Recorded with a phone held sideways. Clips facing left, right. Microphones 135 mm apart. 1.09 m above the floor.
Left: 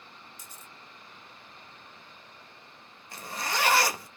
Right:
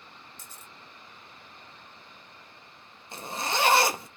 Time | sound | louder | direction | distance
0.4 | a camera shutter | even | 10° left (ahead or behind) | 0.8 m
3.1 | a zipper | right 2 dB | 25° right (ahead or behind) | 0.6 m